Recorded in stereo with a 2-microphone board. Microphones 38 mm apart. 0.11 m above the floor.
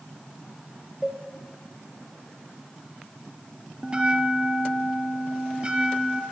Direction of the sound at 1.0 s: 15° right (ahead or behind).